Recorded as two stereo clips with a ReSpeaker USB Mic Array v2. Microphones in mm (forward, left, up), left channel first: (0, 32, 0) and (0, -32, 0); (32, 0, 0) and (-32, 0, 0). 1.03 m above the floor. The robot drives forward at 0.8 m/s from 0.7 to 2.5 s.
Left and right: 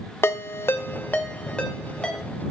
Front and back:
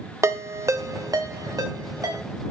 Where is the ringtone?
140° left, 0.6 m; by 2.2 s 170° left, 1.7 m.